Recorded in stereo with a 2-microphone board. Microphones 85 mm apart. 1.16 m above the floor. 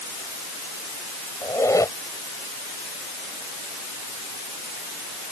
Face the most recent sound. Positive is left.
turn(degrees=40)  # may be behind; listen again after turning